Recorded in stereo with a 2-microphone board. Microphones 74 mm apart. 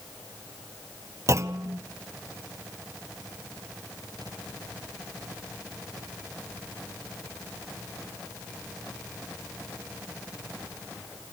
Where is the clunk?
45° right (ahead or behind), 1.0 m.